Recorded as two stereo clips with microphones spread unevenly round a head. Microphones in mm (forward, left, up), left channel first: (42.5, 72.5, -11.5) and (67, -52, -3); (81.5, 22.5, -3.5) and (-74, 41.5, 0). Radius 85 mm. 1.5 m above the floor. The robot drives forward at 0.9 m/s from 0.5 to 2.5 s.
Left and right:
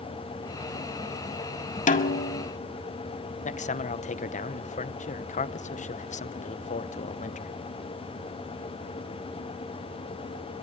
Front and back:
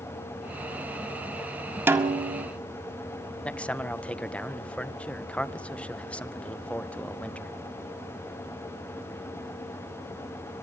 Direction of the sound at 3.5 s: 75° left.